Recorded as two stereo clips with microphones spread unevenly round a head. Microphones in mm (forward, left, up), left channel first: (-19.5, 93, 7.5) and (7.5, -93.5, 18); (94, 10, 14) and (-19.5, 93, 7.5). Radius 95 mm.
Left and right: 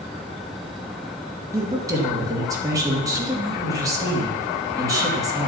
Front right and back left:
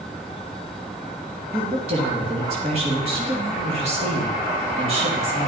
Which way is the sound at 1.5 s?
155° right.